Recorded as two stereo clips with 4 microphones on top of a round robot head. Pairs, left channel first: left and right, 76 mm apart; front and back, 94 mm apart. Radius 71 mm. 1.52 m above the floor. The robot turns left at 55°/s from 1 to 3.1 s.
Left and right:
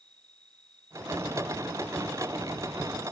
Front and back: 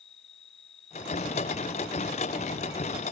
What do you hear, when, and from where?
0.0 s an insect: 5° left; by 3.1 s 110° right